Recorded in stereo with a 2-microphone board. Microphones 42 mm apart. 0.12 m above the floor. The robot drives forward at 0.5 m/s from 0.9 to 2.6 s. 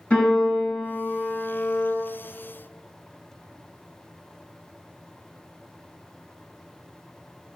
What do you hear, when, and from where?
0.1 s a piano: 25° left (ahead or behind), 1.6 m; by 1.9 s 20° left (ahead or behind), 1.9 m